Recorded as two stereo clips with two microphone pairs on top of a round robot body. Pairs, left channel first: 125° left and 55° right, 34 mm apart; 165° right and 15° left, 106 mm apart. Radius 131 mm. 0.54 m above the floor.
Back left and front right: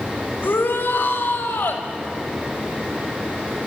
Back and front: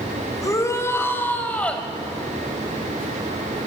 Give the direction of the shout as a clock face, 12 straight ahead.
7 o'clock.